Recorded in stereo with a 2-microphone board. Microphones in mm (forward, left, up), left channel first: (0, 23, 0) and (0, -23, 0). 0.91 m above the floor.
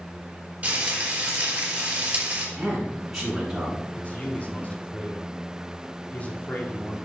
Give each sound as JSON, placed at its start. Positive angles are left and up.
{"t": 0.6, "sound": "frying", "side_deg": -30, "distance_m": 3.5}
{"t": 2.6, "sound": "a man speaking", "side_deg": -5, "distance_m": 5.0}
{"t": 4.0, "sound": "a man speaking", "side_deg": 35, "distance_m": 2.0}